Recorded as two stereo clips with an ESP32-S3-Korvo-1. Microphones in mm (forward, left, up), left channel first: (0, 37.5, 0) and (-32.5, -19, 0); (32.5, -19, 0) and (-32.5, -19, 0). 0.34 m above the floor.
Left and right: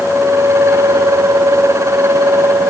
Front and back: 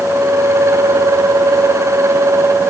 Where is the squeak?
I don't hear a squeak.